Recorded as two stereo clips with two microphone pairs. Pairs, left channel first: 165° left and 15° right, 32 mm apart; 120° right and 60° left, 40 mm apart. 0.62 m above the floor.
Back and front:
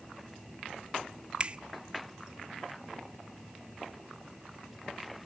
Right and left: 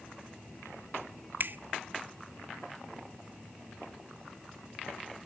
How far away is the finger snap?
About 0.6 m.